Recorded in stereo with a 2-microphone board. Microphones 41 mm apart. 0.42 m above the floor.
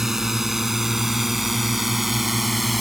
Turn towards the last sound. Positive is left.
turn(degrees=-5)  # may be behind; listen again after turning